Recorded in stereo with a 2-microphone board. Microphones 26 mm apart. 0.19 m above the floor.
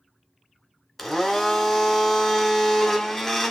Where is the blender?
5° left (ahead or behind), 0.8 m.